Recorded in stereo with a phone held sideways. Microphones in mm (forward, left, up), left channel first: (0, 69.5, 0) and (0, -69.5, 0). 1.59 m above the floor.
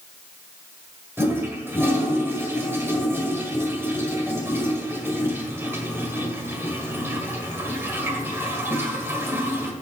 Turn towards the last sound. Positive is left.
turn(degrees=-15)  # may be behind; listen again after turning